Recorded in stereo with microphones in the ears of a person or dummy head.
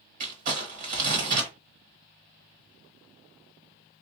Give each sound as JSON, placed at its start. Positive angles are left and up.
{"t": 0.2, "sound": "crumpling", "side_deg": -45, "distance_m": 1.1}